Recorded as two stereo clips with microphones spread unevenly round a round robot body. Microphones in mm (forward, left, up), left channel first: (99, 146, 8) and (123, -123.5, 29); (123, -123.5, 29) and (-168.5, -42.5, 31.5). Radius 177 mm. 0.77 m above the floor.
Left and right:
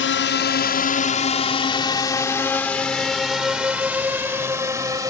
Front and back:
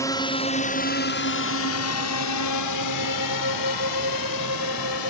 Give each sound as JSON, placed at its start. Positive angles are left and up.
{"t": 0.0, "sound": "a drone", "azimuth_deg": 65}